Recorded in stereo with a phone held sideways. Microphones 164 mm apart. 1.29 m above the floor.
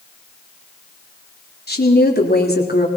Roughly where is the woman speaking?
Left.